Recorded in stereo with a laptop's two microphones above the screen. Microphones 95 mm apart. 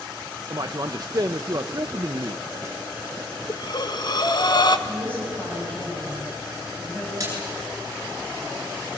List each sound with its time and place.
0.5 s a man speaking: 45° right (ahead or behind), 0.6 m
3.5 s breathing: 50° left (ahead or behind), 1.1 m
4.9 s a woman speaking: 15° left (ahead or behind), 6 m
7.2 s a splash: 35° right (ahead or behind), 9.5 m